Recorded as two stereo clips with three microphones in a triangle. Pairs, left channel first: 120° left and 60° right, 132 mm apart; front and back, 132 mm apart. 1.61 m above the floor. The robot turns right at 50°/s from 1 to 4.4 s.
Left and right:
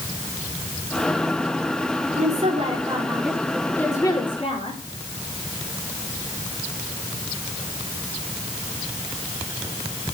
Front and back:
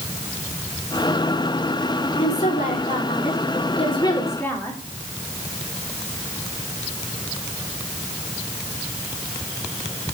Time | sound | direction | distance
2.1 | a woman speaking | 40° right | 4 m